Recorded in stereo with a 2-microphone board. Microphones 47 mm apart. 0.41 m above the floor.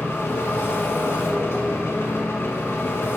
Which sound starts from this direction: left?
An engine running, at 0.0 s.